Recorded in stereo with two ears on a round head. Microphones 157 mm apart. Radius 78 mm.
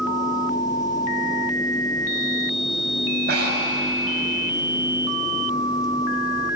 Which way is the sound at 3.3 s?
65° right (ahead or behind).